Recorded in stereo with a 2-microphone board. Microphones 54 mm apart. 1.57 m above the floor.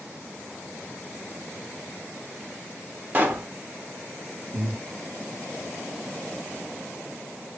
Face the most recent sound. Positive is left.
turn(degrees=-80)